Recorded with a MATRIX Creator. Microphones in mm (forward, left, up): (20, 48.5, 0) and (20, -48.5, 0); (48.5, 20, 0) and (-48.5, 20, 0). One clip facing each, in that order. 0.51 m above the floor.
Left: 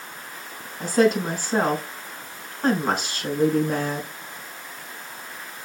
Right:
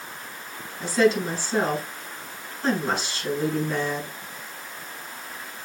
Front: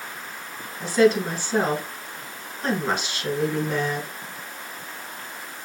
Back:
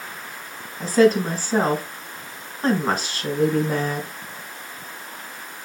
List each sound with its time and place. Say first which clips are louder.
0.8 s a woman speaking: left 1 dB, back 2 dB; 130° left, 4 m